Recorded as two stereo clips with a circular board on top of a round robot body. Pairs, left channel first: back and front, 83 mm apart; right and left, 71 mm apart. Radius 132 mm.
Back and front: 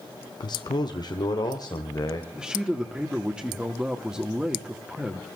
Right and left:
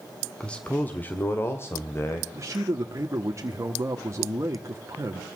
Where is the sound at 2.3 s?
75° left, 1.6 m.